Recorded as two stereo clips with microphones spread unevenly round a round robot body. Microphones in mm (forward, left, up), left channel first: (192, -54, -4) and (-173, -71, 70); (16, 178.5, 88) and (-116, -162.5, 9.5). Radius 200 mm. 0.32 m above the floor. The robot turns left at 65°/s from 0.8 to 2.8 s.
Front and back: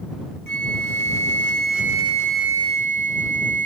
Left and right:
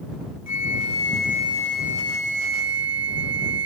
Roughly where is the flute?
Ahead left.